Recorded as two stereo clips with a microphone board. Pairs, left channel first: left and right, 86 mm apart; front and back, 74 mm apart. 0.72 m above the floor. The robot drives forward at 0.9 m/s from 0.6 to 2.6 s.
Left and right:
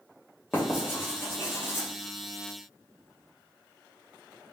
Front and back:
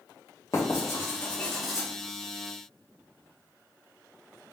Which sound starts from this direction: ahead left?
Writing, at 0.5 s.